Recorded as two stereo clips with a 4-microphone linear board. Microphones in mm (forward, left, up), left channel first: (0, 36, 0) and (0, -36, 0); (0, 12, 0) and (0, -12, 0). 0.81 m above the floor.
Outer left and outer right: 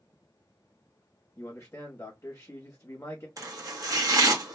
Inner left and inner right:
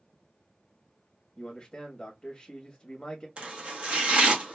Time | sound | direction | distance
1.4 | a man speaking | 35° left (ahead or behind) | 0.9 m
3.4 | chopping | 50° right (ahead or behind) | 1.2 m